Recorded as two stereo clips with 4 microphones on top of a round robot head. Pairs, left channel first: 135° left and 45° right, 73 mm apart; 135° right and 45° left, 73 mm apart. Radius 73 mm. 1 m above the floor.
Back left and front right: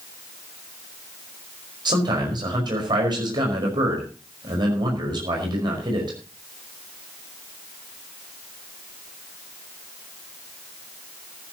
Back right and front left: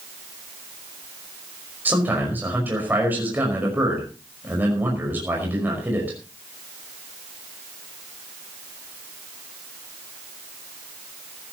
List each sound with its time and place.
1.9 s a man speaking: 20° right, 5 m